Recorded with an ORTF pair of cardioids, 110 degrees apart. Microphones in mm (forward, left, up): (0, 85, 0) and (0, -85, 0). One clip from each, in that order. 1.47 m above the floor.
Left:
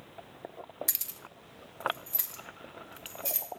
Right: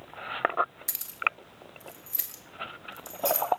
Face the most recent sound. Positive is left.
turn(degrees=-15)